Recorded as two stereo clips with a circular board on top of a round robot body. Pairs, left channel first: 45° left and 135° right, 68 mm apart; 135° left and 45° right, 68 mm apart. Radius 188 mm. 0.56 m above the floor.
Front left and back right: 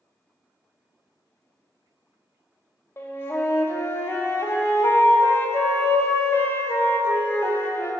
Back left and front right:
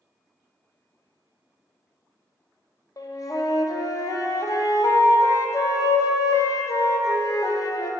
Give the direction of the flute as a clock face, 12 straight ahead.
9 o'clock.